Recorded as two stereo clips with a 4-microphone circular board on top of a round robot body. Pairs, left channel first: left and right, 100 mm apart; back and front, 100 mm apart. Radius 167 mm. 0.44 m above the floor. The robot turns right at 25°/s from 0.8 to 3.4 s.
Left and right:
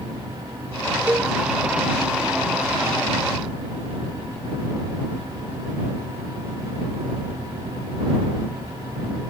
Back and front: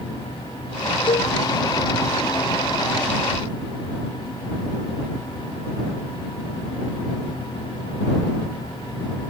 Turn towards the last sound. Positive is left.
turn(degrees=-105)